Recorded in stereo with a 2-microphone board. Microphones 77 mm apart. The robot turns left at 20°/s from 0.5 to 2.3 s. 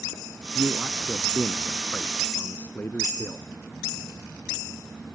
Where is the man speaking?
175° right; by 3.5 s 150° left.